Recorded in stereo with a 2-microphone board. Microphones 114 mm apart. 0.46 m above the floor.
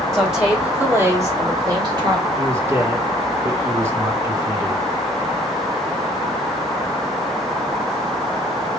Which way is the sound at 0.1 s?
Centre (ahead or behind).